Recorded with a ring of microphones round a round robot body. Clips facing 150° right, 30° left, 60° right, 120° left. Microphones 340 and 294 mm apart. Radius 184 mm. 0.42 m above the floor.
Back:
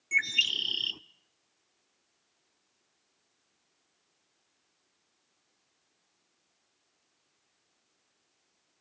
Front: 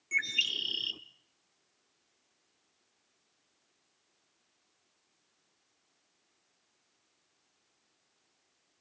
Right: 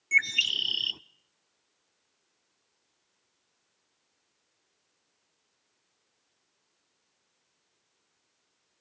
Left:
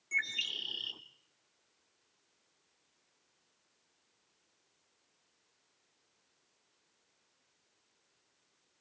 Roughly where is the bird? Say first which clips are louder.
Back 1 dB, right 7 dB; right.